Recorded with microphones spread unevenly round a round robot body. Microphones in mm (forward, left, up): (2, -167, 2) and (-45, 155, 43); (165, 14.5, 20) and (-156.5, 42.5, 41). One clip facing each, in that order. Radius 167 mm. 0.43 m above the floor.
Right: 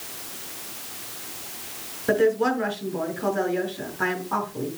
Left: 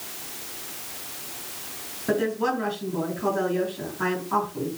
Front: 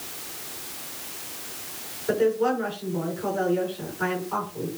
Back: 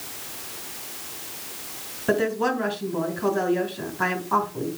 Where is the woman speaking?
160° right, 5 m.